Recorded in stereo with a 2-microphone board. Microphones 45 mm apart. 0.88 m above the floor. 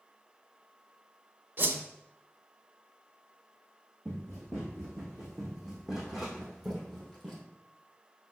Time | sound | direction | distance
1.6 | a whoosh | 45° right (ahead or behind) | 0.7 m
4.0 | running footsteps | 15° right (ahead or behind) | 3 m